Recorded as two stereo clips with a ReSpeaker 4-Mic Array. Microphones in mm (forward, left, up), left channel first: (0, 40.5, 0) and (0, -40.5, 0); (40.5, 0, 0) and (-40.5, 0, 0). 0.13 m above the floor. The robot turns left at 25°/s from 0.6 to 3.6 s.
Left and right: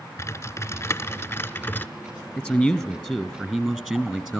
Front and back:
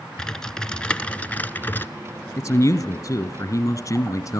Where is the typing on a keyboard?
75° left, 0.7 m; by 1.9 s 45° left, 0.7 m.